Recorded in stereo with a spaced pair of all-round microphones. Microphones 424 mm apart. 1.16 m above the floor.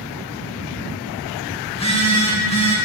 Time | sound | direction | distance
1.7 | a phone buzzing | 15° left (ahead or behind) | 1.0 m